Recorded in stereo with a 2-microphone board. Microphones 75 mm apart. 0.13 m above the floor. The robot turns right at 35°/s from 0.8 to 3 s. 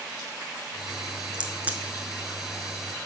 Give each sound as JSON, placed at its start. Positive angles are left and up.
{"t": 1.3, "sound": "a crack", "side_deg": -10, "distance_m": 0.9}